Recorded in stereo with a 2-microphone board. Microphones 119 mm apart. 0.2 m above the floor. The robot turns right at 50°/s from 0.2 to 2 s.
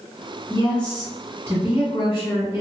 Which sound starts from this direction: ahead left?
A woman speaking, at 0.5 s.